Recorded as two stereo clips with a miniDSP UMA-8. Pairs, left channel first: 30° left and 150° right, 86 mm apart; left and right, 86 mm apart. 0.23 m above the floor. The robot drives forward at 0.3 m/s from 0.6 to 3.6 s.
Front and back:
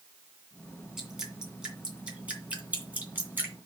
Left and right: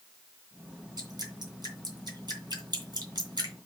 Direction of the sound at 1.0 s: 65° right.